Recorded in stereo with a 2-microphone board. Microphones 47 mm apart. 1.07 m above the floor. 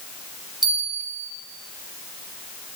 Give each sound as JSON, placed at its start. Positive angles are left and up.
{"t": 0.6, "sound": "a bell", "side_deg": -15, "distance_m": 1.9}